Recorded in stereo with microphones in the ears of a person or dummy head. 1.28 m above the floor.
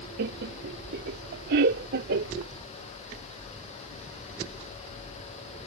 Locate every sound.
0.2 s laughter: 55° right (ahead or behind); by 2.5 s 60° right (ahead or behind)